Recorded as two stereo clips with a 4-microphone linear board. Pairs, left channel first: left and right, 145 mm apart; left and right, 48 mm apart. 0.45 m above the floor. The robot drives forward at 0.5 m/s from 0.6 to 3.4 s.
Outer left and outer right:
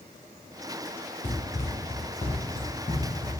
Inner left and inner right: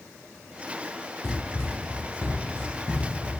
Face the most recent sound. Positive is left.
turn(degrees=30)  # may be behind; listen again after turning